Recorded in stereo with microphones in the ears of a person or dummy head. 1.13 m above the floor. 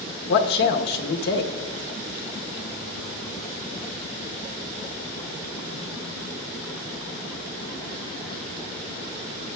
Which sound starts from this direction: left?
A man speaking, at 0.3 s.